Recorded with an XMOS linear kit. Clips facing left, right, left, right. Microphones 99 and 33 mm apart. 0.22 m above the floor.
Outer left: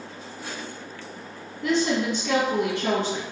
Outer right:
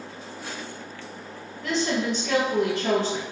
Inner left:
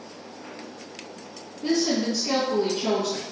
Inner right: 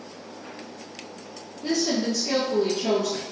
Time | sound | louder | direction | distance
1.6 | a woman speaking | outer left 2 dB, inner left 1 dB | 40° left (ahead or behind) | 1.8 m